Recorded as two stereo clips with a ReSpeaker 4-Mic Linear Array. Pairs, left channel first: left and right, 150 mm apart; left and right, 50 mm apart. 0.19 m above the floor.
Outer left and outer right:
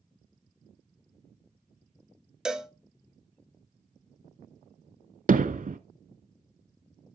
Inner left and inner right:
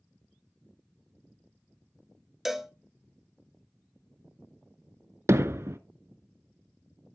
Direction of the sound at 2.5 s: 5° right (ahead or behind).